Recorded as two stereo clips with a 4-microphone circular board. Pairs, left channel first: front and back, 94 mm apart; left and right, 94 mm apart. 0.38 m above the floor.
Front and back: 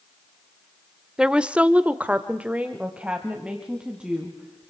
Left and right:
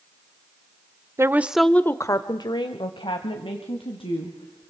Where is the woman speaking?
105° right, 0.9 m; by 4.7 s 100° left, 3.5 m.